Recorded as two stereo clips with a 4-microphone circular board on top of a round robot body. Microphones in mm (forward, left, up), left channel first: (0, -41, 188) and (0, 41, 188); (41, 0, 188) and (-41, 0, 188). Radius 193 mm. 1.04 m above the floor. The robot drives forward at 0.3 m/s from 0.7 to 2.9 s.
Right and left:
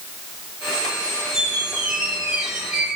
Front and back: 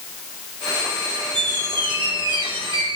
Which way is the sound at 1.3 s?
170° left.